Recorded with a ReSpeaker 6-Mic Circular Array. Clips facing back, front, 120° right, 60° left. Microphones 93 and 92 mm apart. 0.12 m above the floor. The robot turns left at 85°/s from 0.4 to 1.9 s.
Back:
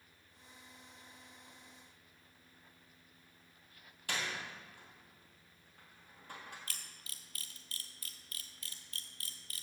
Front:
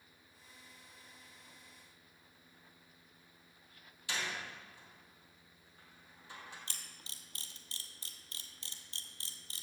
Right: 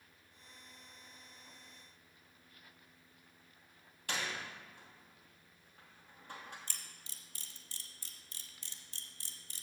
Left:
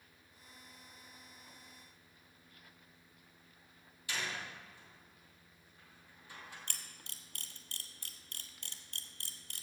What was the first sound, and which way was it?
A door slam, 150° right.